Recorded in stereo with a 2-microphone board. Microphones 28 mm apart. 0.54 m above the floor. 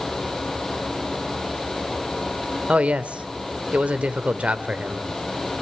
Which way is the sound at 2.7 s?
50° right (ahead or behind).